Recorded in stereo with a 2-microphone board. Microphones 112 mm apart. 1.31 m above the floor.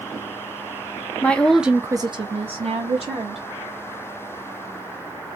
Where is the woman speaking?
15° left (ahead or behind), 0.9 m; by 3.4 s 70° right (ahead or behind), 1.5 m.